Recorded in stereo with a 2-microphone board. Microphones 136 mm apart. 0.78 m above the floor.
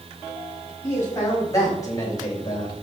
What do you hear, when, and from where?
0.8 s a man speaking: 20° left (ahead or behind), 5 m; by 2.8 s 35° left (ahead or behind), 3 m